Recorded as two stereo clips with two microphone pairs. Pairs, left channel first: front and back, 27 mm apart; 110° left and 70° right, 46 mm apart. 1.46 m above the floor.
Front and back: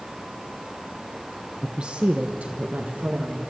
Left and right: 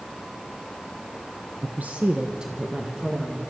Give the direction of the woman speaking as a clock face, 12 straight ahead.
4 o'clock.